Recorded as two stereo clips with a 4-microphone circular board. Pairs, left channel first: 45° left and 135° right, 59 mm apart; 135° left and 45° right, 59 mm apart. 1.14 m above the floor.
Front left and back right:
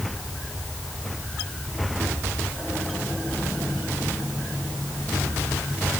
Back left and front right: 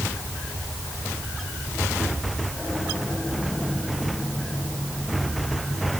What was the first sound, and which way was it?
Only background noise.